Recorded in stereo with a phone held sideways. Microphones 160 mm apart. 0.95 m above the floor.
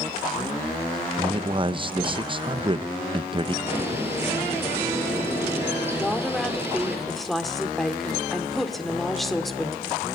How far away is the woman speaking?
About 2 m.